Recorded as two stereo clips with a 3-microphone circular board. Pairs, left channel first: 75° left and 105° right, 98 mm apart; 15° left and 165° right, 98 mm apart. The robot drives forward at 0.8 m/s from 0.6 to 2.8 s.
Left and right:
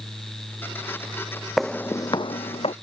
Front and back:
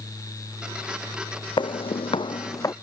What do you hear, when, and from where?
1.6 s footsteps: 15° right; by 2.7 s 75° left